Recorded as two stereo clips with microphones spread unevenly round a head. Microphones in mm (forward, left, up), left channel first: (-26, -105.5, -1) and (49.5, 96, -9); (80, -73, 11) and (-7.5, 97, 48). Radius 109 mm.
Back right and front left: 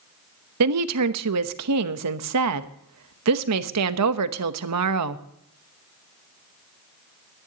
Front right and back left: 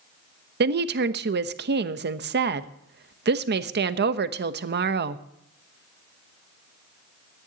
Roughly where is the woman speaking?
Left.